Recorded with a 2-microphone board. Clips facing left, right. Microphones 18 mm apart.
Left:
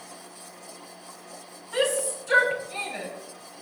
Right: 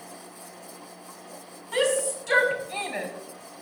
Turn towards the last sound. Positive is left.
turn(degrees=-40)  # may be behind; listen again after turning